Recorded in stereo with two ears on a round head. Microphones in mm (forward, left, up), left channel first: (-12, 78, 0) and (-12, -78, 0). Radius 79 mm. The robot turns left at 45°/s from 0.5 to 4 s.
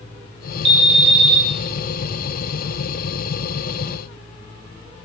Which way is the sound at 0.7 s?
70° right.